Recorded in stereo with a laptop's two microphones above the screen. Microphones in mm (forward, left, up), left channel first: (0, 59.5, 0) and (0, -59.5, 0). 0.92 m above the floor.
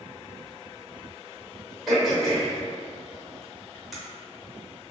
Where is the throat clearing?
Centre (ahead or behind), 0.8 m.